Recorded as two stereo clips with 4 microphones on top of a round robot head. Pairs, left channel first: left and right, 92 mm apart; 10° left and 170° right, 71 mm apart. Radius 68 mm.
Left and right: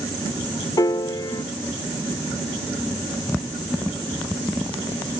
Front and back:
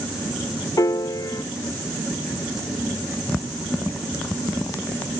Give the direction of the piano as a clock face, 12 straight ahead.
11 o'clock.